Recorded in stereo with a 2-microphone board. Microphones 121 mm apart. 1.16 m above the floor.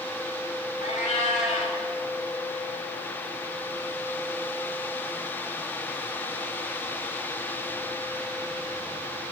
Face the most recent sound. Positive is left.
turn(degrees=75)  # may be behind; listen again after turning